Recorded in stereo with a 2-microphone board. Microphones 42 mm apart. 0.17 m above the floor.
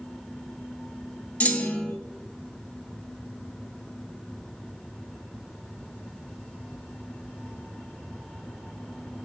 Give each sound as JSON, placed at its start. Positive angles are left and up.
{"t": 1.4, "sound": "a clunk", "side_deg": 30, "distance_m": 1.0}